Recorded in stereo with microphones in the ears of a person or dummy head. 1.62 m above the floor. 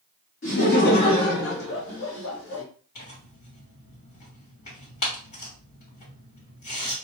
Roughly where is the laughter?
Left.